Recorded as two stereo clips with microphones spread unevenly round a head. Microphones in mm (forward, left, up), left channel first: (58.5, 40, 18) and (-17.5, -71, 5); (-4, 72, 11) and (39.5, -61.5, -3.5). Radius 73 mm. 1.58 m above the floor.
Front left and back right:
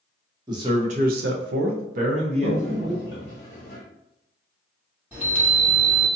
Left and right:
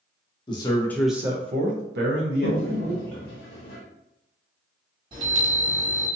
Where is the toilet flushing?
105° left, 0.8 m.